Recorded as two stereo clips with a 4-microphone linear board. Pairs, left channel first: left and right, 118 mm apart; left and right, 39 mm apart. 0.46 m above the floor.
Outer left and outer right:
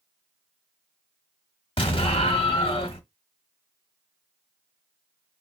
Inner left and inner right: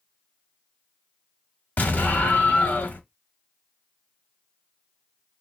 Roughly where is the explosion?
Left.